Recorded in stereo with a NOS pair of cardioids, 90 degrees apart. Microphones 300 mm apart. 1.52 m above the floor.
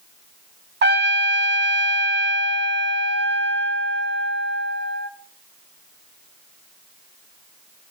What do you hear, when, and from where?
0.8 s a trumpet: 35° right, 1.2 m